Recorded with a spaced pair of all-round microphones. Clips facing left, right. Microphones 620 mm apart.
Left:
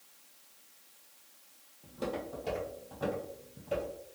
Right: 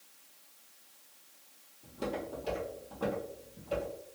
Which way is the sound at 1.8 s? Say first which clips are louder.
Even; 20° right (ahead or behind).